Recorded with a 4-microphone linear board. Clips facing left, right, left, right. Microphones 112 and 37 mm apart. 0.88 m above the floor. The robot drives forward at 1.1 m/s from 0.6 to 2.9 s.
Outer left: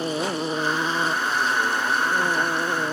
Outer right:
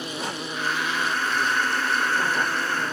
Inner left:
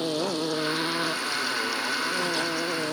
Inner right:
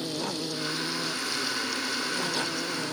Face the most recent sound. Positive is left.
turn(degrees=35)  # may be behind; listen again after turning